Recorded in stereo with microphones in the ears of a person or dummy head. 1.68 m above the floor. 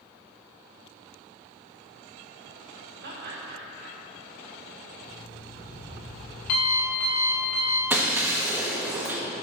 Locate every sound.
3.0 s laughter: 55° right (ahead or behind), 2 m
5.0 s an alarm clock: 50° left (ahead or behind), 3.5 m
7.9 s breaking glass: 15° right (ahead or behind), 1.2 m